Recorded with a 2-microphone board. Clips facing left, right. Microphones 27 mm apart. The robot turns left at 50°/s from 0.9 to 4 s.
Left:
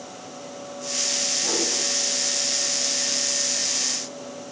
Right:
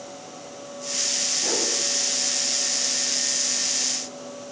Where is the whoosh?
25° right (ahead or behind), 3.5 m; by 1.7 s 10° right (ahead or behind), 3.5 m.